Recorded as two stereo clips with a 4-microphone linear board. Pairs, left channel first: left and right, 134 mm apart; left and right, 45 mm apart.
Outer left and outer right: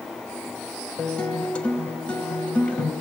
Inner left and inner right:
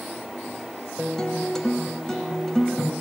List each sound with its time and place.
1.0 s a guitar: 10° left (ahead or behind), 1.5 m